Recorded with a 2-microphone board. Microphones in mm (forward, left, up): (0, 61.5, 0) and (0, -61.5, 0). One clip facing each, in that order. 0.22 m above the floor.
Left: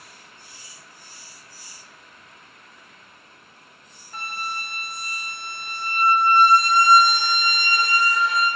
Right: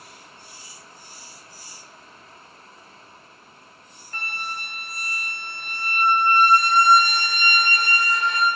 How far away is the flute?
About 1.6 m.